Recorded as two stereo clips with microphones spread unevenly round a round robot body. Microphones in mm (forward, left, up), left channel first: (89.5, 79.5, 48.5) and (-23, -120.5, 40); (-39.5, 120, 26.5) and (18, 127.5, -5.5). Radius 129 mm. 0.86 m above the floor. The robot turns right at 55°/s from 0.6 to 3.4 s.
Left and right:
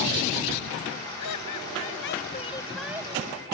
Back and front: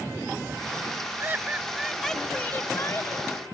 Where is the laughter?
60° left; by 3.3 s straight behind.